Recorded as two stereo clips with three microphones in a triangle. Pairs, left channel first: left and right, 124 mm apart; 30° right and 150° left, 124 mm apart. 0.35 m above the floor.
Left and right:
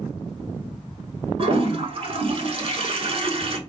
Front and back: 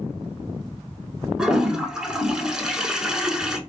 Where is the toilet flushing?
125° right, 0.6 m.